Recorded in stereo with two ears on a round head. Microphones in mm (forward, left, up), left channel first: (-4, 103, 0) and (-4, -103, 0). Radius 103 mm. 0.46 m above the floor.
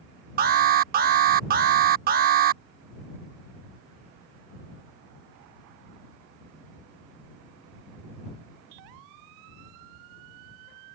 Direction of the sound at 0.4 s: 40° right (ahead or behind).